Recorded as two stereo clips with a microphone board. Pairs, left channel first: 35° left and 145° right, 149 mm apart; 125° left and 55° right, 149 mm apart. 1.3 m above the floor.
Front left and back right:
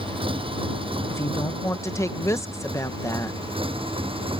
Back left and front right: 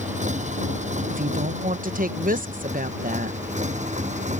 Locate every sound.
0.0 s a motorcycle: 90° right; by 4.4 s 95° right
1.1 s a woman speaking: 35° right